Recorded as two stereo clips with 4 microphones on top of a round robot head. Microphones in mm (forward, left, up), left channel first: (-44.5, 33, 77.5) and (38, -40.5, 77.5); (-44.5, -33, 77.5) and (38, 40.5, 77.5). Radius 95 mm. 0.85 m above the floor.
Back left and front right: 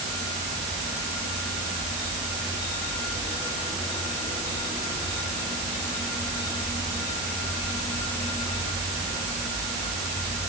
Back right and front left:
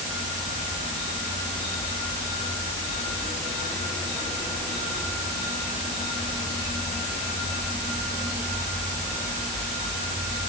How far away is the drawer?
I don't hear a drawer.